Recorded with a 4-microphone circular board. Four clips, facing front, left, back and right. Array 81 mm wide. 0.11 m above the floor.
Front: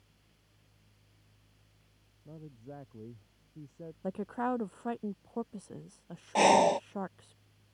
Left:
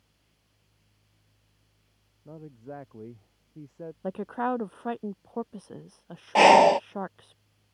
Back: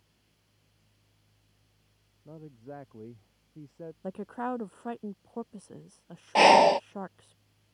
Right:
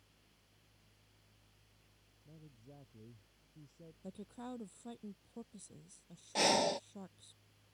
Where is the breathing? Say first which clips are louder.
Left 17 dB, back 5 dB; 115° left.